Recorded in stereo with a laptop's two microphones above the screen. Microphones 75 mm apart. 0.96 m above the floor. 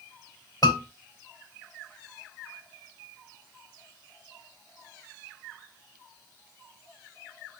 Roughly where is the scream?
Left.